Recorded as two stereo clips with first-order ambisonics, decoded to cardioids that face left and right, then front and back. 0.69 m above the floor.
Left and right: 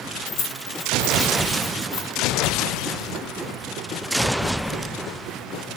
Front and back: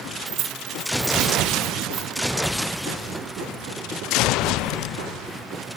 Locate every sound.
0.3 s keys jangling: 135° left, 1.5 m; by 2.2 s 120° left, 3.5 m